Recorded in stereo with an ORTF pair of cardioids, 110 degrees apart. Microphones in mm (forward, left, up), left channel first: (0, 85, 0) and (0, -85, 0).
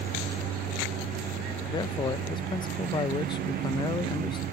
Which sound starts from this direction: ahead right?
A lawn mower, at 0.0 s.